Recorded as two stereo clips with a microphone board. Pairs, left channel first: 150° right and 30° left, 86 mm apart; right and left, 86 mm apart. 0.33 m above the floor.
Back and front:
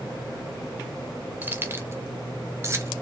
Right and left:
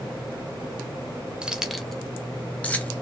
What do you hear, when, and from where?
1.4 s keys jangling: 30° left, 0.7 m; by 2.9 s 20° right, 1.3 m